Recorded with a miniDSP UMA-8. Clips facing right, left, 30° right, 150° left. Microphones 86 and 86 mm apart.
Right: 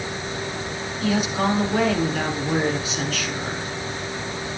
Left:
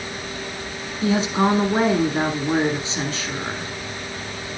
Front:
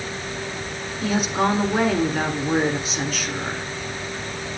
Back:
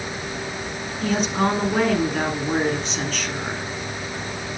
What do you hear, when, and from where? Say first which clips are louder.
1.0 s a woman speaking: left 3 dB, even; 50° left, 1.6 m